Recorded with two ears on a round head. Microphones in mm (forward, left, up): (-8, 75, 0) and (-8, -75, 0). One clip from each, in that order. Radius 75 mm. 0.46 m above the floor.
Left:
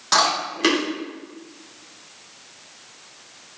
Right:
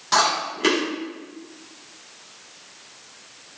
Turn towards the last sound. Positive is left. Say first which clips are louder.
# left 1 dB
turn(degrees=30)  # may be behind; listen again after turning